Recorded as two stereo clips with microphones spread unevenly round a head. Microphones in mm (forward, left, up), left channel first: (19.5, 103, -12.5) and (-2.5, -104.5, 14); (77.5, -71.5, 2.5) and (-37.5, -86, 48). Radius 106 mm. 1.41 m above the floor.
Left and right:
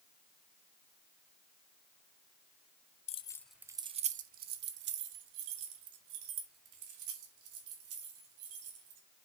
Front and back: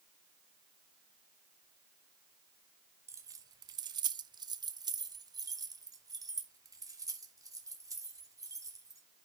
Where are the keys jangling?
145° left, 0.6 m; by 9.0 s 115° right, 4 m.